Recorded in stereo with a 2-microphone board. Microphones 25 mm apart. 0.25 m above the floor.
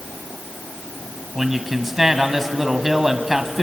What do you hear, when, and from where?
1.4 s a man speaking: 10° right (ahead or behind), 1.8 m